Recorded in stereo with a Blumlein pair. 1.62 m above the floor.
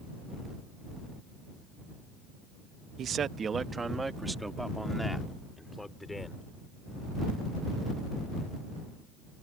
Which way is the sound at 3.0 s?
30° right.